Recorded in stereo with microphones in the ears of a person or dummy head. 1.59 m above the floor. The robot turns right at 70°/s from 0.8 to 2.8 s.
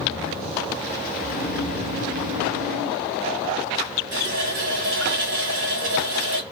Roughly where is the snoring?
Behind left.